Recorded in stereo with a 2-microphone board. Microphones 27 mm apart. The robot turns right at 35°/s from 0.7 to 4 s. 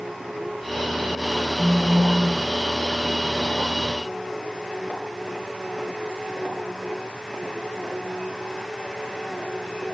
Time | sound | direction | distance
1.6 | a phone buzzing | 40° right (ahead or behind) | 1.1 m